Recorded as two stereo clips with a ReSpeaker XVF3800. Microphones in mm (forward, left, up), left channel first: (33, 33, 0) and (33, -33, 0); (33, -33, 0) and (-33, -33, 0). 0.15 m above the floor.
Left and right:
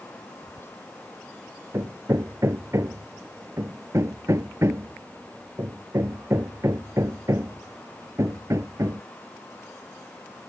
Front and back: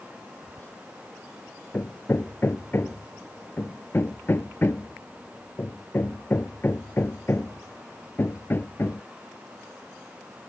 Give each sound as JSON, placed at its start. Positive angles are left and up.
{"t": 0.4, "sound": "whispering", "azimuth_deg": 60}
{"t": 1.7, "sound": "hammering", "azimuth_deg": -55}